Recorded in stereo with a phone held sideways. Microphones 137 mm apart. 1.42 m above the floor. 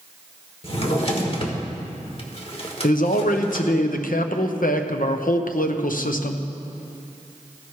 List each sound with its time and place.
0.6 s a drawer: 45° left (ahead or behind), 1.4 m
2.8 s a man speaking: 80° left, 0.8 m